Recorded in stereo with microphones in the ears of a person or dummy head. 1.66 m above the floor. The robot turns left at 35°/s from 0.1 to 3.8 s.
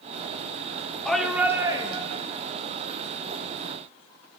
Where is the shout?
15° left, 0.9 m; by 2.2 s 30° right, 0.9 m.